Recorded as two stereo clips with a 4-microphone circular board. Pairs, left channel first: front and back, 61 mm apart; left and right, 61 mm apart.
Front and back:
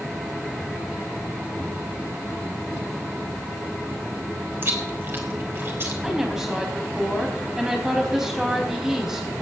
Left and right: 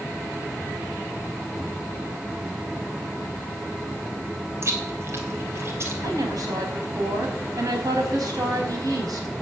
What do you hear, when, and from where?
4.6 s chewing: 130° right, 3 m
6.0 s a woman speaking: 100° right, 4.5 m